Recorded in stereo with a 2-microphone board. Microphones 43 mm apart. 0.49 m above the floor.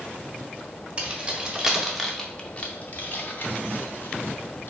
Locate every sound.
1.0 s keys jangling: 25° right (ahead or behind), 0.8 m; by 4.7 s 60° left (ahead or behind), 1.3 m